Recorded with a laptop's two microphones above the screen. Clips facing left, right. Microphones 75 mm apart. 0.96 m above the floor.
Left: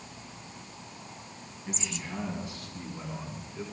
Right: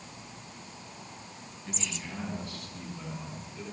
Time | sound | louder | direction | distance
1.7 | a man speaking | left 2 dB | 15° left (ahead or behind) | 9.5 m